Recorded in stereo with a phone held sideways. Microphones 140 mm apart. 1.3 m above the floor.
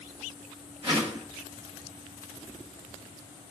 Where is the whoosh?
40° right (ahead or behind), 1.5 m.